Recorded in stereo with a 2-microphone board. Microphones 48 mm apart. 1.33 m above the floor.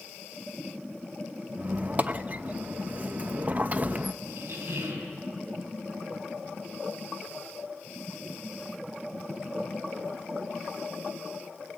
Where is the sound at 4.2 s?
70° right (ahead or behind), 4.5 m.